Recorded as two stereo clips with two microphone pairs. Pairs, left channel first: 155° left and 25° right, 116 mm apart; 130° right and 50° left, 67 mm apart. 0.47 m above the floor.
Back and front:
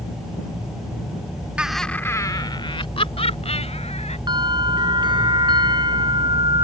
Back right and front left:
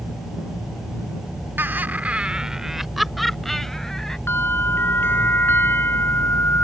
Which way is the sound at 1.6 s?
45° left.